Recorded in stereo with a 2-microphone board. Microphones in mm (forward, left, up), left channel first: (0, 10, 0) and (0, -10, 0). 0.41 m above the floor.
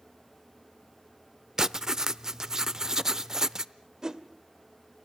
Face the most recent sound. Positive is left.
turn(degrees=-30)  # may be behind; listen again after turning